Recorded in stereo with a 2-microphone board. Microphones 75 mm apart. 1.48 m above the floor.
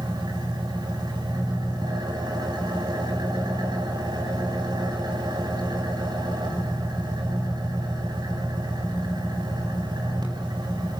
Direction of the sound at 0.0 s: 90° right.